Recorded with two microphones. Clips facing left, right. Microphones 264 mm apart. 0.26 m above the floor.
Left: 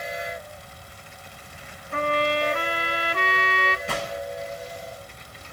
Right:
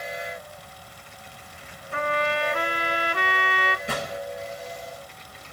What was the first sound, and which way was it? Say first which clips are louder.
A trumpet: left 2 dB; 40° left (ahead or behind).